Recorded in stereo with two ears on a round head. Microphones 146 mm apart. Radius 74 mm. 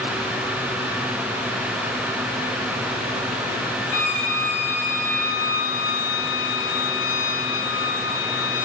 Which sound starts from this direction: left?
A violin, at 3.9 s.